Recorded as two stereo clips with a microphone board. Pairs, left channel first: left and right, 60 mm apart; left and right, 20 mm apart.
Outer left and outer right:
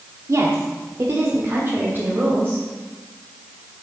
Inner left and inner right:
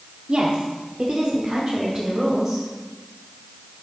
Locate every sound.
0.3 s a woman speaking: 55° right (ahead or behind), 1.2 m; by 2.6 s 35° right (ahead or behind), 2.5 m